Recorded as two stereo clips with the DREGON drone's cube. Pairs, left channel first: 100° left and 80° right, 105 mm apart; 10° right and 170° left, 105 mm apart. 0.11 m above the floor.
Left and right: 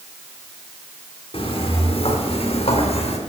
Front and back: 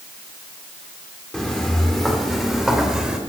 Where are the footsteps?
70° left, 4.5 m; by 3.2 s 85° left, 3.5 m.